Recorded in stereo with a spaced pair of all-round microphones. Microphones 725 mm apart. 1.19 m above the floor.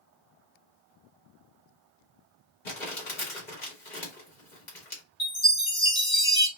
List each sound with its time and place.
2.6 s crumpling: 90° left, 2 m
5.2 s a chime: 80° left, 2.5 m